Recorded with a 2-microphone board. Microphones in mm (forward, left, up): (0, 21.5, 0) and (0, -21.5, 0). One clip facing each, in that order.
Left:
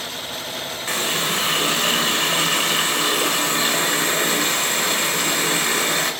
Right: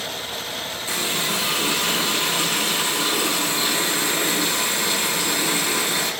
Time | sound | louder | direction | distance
0.9 | a running tap | left 2 dB | 55° left (ahead or behind) | 1.5 m